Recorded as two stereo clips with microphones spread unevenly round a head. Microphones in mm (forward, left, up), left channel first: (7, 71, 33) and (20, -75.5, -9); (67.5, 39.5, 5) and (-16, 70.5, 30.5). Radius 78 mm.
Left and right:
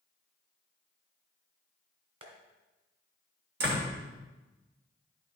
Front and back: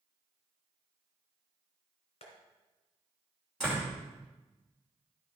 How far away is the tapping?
About 2 m.